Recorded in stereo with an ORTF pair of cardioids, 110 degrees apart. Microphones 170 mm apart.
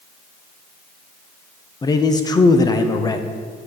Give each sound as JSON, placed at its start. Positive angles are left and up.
{"t": 1.8, "sound": "a man speaking", "azimuth_deg": 20, "distance_m": 1.1}